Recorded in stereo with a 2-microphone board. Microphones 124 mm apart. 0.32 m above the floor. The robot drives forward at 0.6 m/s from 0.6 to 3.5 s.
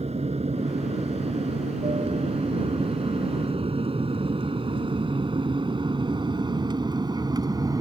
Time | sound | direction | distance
0.0 | an aircraft | 60° right (ahead or behind) | ?